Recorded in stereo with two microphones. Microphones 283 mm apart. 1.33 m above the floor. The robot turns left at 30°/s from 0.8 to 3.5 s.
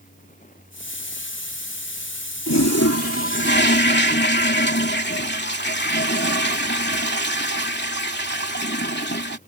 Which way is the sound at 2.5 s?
70° left.